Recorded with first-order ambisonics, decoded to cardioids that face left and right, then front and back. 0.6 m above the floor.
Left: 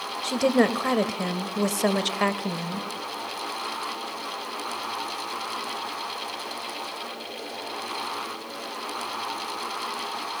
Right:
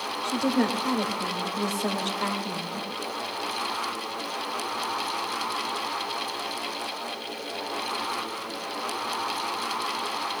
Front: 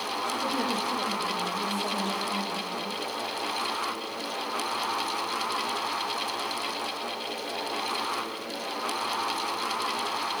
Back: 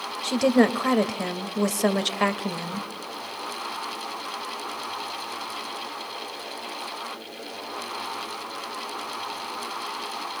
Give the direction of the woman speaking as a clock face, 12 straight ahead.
7 o'clock.